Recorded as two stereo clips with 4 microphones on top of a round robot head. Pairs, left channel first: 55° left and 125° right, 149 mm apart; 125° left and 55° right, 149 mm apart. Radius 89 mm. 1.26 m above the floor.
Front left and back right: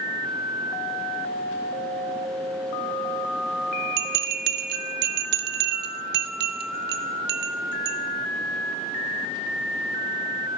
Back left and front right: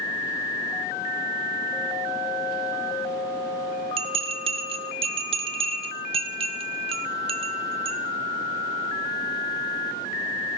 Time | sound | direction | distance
4.0 | a bell | 105° right | 0.6 m